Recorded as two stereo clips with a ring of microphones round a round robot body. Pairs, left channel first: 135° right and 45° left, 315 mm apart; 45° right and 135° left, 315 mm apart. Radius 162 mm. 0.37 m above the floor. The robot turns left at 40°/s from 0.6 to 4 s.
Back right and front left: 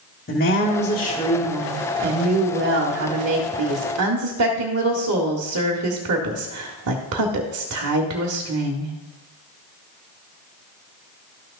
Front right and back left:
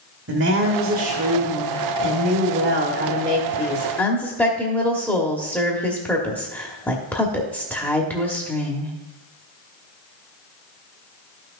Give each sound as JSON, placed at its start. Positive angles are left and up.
{"t": 0.3, "sound": "a woman speaking", "azimuth_deg": 170, "distance_m": 1.1}